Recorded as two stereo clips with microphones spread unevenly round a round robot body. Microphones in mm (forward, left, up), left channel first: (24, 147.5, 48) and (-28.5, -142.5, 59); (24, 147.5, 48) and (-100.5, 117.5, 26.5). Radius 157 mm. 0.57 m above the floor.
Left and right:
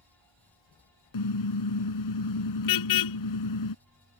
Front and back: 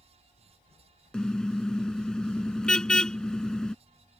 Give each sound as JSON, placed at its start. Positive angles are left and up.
{"t": 1.1, "sound": "a car horn", "azimuth_deg": 95}